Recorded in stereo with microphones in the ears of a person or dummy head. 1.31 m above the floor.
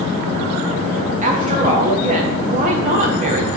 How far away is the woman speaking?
About 1.2 m.